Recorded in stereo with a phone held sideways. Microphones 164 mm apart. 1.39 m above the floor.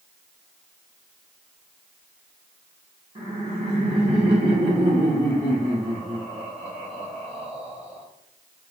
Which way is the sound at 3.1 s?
35° right (ahead or behind).